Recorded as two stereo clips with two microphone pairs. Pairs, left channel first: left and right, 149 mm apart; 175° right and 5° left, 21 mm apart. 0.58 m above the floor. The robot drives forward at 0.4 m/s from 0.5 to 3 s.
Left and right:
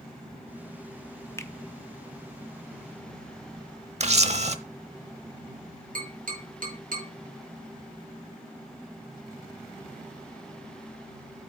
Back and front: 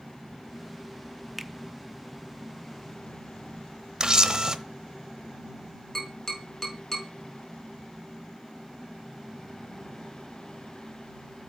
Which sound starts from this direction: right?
Tapping, at 6.0 s.